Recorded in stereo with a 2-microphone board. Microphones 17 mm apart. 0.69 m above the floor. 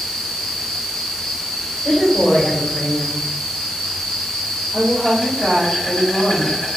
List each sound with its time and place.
0.0 s an insect: 75° left (ahead or behind), 1.4 m
1.8 s a woman speaking: 60° left (ahead or behind), 1.5 m
4.7 s a woman speaking: 15° right (ahead or behind), 1.8 m